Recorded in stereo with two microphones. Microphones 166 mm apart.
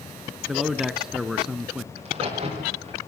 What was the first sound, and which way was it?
A man speaking, 5° right (ahead or behind).